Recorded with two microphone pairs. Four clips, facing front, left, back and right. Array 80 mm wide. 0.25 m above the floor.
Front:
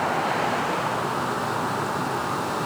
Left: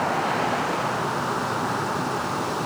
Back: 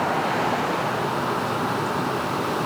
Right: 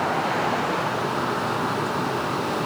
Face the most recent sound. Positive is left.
No sound to turn to.